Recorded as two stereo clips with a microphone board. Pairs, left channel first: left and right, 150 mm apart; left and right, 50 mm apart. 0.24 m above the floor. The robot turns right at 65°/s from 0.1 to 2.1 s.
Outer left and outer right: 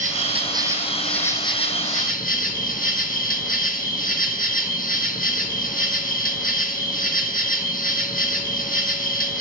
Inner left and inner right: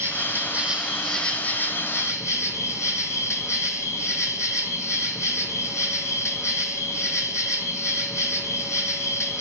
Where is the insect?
60° right, 1.0 m; by 9.4 s 70° left, 1.0 m.